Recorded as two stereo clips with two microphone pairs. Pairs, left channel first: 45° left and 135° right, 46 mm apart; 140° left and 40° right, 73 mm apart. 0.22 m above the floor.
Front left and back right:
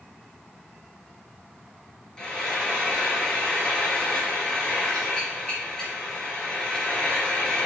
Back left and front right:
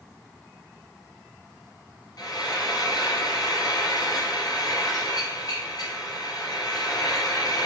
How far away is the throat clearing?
No throat clearing in this recording.